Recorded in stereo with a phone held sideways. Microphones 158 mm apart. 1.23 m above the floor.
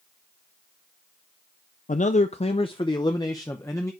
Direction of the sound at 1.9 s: 55° left (ahead or behind).